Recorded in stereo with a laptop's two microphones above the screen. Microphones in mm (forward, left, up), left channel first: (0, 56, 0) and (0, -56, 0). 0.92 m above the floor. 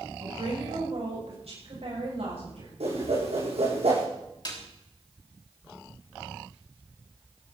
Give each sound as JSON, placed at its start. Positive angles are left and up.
{"t": 0.2, "sound": "a woman speaking", "side_deg": -70, "distance_m": 6.0}
{"t": 2.8, "sound": "a whoosh", "side_deg": -80, "distance_m": 7.5}
{"t": 4.5, "sound": "a snare drum", "side_deg": 45, "distance_m": 3.0}